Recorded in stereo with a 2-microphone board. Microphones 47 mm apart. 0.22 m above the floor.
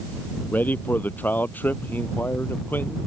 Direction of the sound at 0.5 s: 40° left (ahead or behind).